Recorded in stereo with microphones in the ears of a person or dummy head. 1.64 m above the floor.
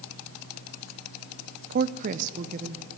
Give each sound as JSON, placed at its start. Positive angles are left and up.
{"t": 1.7, "sound": "a woman speaking", "side_deg": -50, "distance_m": 0.6}